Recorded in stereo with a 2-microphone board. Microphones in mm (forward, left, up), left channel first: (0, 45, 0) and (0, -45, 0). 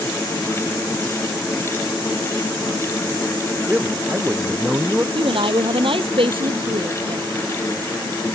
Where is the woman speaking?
75° right (ahead or behind).